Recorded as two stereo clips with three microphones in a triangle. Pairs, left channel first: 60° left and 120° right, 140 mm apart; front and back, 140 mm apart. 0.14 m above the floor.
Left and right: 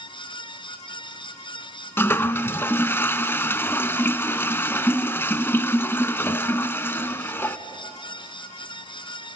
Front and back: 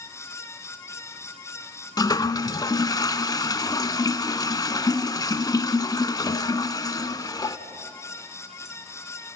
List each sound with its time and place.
2.0 s a toilet flushing: 5° left, 0.7 m